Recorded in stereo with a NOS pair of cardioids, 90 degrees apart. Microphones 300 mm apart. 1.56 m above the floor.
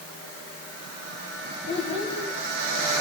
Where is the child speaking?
40° left, 6 m.